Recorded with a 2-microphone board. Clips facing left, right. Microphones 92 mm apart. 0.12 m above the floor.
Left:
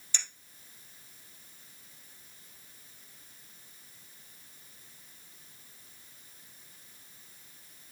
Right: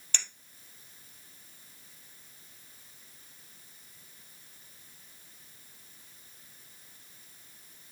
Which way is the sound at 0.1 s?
60° right (ahead or behind).